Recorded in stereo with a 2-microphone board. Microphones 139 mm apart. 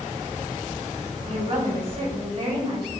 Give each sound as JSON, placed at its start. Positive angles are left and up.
{"t": 1.3, "sound": "a woman speaking", "side_deg": -40, "distance_m": 4.5}